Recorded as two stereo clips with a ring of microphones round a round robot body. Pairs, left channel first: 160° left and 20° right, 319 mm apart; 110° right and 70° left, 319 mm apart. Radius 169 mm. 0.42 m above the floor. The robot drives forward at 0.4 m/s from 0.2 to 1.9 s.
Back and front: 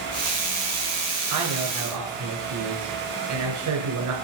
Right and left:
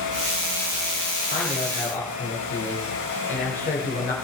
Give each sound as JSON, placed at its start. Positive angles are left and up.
{"t": 1.3, "sound": "a man speaking", "azimuth_deg": -40, "distance_m": 2.5}